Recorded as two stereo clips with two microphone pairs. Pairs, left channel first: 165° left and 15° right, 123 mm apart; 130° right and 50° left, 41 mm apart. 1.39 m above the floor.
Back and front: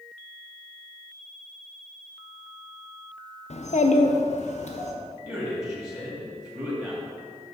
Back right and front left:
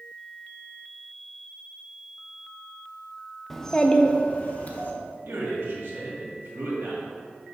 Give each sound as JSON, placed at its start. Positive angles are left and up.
{"t": 3.5, "sound": "a child speaking", "azimuth_deg": 145, "distance_m": 0.5}
{"t": 5.2, "sound": "a man speaking", "azimuth_deg": 50, "distance_m": 1.8}